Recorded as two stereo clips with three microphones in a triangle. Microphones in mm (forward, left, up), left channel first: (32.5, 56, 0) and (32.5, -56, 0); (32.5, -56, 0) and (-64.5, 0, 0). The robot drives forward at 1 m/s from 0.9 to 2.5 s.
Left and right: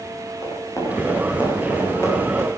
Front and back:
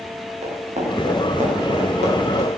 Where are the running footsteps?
150° left, 8.5 m; by 2.5 s 160° left, 7.5 m.